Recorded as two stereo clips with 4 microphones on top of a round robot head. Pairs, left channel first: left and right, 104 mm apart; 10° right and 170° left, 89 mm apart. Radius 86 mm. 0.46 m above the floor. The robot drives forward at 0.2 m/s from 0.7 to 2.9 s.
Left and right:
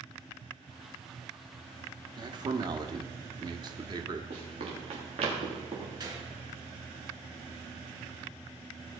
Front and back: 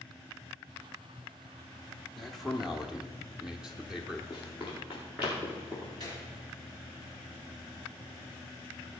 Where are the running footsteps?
120° right, 4 m; by 5.9 s 110° right, 5 m.